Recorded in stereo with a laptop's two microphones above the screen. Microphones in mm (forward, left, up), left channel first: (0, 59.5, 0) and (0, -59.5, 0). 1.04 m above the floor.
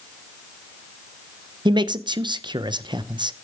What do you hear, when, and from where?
1.6 s a man speaking: 40° right (ahead or behind), 0.6 m